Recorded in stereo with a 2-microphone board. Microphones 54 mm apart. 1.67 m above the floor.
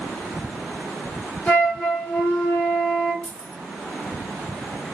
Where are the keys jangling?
20° left (ahead or behind), 0.6 m.